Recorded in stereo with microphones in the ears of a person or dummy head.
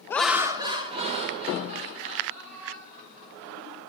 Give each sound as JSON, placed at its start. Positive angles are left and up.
{"t": 0.1, "sound": "laughter", "side_deg": 15, "distance_m": 0.6}